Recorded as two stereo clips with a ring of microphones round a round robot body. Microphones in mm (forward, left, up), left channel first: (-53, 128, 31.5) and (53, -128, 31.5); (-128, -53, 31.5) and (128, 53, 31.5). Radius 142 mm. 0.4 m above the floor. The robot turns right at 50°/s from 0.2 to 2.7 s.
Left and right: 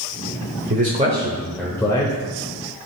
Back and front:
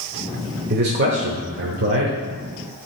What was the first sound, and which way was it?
A man speaking, 20° right.